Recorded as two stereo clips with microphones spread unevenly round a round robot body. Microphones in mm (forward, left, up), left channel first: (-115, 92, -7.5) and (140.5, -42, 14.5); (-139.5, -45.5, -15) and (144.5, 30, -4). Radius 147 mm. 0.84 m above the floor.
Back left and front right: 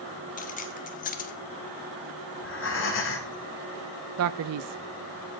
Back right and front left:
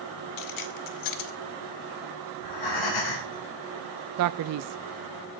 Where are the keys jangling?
145° right, 0.9 m.